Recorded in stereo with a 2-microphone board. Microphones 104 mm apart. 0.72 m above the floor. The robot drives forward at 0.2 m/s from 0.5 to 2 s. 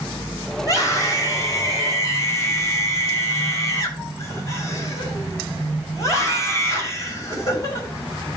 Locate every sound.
0.6 s a scream: 30° left (ahead or behind), 4 m